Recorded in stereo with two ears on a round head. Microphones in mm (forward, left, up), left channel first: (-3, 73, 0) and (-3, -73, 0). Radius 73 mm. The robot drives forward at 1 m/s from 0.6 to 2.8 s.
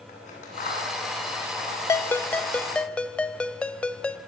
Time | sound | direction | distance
0.1 | scissors | 50° left (ahead or behind) | 10 m
1.9 | a ringtone | 20° left (ahead or behind) | 0.5 m